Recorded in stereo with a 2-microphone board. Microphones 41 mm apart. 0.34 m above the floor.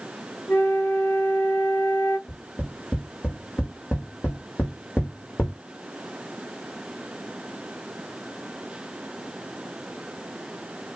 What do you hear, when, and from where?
0.5 s a flute: 65° left (ahead or behind), 2.5 m
2.3 s tapping: 65° left (ahead or behind), 5 m